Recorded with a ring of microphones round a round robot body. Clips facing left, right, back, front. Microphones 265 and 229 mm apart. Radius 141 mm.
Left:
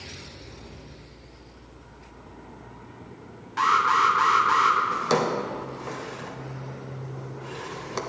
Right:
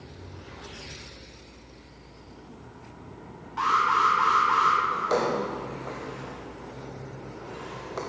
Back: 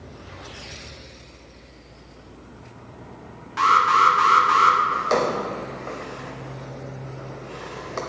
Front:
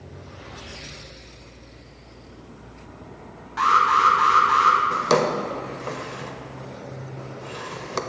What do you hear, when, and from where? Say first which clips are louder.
3.6 s an alarm: left 2 dB, back 1 dB; 135° left, 1.3 m
4.9 s a drawer: left 1 dB, front 2 dB; 45° left, 0.7 m